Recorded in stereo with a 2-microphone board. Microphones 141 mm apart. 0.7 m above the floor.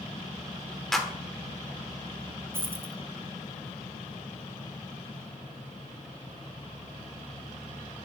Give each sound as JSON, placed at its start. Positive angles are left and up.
{"t": 0.9, "sound": "a clap", "side_deg": 5, "distance_m": 1.2}
{"t": 2.5, "sound": "a dropped coin", "side_deg": -15, "distance_m": 0.9}